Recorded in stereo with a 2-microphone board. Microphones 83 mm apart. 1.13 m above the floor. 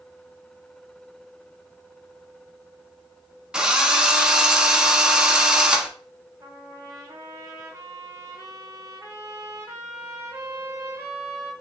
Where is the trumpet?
35° right (ahead or behind), 1.1 m.